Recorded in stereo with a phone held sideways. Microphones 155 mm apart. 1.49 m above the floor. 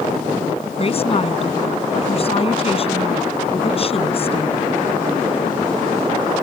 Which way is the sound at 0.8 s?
40° left (ahead or behind).